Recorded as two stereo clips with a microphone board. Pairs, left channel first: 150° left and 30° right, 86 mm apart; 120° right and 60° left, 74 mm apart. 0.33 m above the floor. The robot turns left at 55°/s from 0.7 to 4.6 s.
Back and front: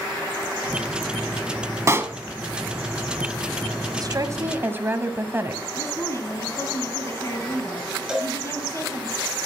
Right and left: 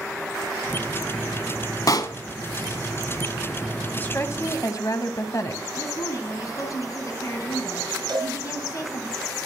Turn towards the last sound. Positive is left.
turn(degrees=55)